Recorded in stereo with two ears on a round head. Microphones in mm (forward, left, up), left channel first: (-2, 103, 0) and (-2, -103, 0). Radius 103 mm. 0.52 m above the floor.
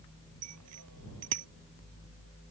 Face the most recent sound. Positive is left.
turn(degrees=-80)